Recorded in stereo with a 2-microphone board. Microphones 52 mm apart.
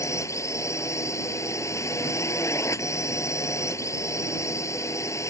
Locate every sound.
0.0 s a drone: 75° left (ahead or behind)